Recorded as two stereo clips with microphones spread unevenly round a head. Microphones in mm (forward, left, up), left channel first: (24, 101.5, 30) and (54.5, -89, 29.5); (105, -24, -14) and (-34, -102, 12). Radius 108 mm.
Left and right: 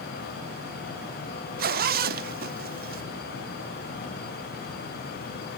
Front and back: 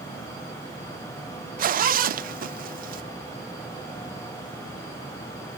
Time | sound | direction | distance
1.6 | a zipper | 120° right | 0.6 m